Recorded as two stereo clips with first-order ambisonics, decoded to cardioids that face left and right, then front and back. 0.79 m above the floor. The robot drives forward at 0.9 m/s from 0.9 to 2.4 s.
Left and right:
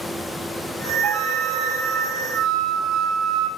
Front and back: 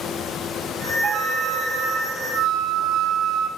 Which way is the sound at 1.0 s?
125° right.